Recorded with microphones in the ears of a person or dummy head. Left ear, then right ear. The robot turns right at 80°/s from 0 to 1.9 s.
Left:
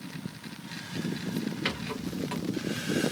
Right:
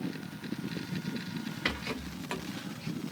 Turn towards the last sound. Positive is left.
turn(degrees=-25)  # may be behind; listen again after turning